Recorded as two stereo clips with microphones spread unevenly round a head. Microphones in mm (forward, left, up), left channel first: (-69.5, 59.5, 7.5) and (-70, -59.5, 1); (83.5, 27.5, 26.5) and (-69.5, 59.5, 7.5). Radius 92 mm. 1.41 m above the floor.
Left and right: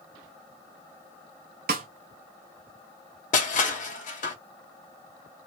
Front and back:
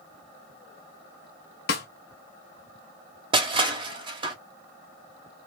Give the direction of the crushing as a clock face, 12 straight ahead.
8 o'clock.